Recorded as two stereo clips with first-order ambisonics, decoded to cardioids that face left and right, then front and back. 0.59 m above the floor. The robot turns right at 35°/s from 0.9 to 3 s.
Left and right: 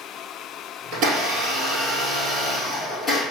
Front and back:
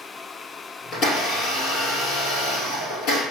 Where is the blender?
55° right, 1.8 m; by 3.2 s 20° left, 1.8 m.